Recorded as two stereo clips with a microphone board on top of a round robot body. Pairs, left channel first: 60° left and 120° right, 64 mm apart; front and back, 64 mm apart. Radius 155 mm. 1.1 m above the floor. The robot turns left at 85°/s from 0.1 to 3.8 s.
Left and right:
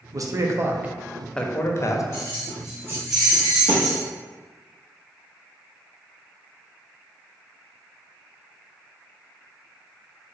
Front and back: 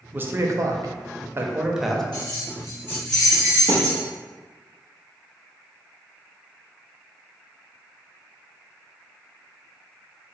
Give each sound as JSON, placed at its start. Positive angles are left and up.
{"t": 0.1, "sound": "a man speaking", "azimuth_deg": -120, "distance_m": 0.7}
{"t": 2.1, "sound": "keys jangling", "azimuth_deg": 5, "distance_m": 0.5}
{"t": 3.7, "sound": "a thud", "azimuth_deg": -145, "distance_m": 0.8}